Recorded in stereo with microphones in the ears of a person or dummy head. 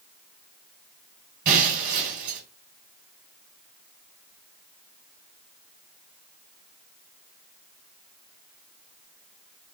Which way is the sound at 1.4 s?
50° right (ahead or behind).